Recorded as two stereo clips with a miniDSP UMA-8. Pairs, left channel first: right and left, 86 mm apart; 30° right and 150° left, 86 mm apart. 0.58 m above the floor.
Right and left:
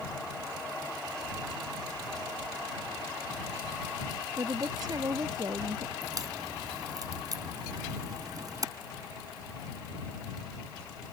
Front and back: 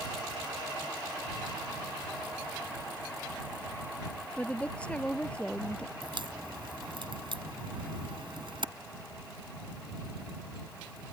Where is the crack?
135° left.